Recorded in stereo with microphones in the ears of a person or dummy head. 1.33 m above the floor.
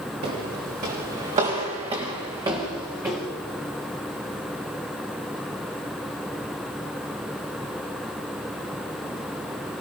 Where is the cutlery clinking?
I don't hear cutlery clinking.